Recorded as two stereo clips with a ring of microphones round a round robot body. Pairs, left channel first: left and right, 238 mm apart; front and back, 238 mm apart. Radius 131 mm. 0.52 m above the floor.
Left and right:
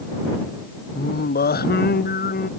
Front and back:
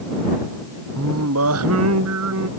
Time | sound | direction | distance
0.9 | singing | 140° left | ?